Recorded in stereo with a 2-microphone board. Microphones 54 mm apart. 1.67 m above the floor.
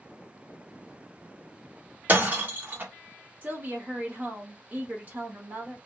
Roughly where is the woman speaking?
Right.